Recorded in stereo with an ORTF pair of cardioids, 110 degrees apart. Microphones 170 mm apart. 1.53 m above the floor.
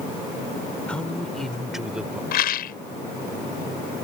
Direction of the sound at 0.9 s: 5° left.